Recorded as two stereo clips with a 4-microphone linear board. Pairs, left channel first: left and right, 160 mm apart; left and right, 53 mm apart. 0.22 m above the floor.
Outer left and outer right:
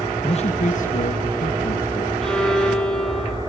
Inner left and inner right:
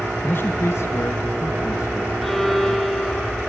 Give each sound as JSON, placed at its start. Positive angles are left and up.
{"t": 0.2, "sound": "a man speaking", "side_deg": 40, "distance_m": 1.5}
{"t": 2.2, "sound": "a violin", "side_deg": 5, "distance_m": 1.7}